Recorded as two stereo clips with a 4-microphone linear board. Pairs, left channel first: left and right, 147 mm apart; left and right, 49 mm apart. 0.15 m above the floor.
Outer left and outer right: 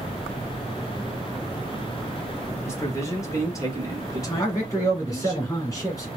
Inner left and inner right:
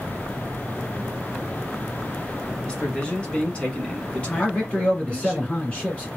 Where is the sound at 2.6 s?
20° left (ahead or behind), 1.4 m.